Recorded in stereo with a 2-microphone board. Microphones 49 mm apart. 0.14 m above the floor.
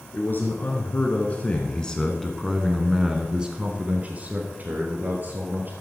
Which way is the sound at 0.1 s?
40° left (ahead or behind).